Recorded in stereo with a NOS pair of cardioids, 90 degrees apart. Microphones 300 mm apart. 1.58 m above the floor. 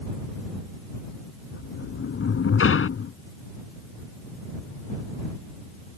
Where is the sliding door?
45° left.